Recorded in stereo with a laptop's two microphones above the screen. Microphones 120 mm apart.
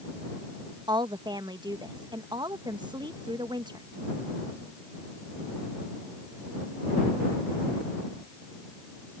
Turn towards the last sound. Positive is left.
turn(degrees=-40)  # may be behind; listen again after turning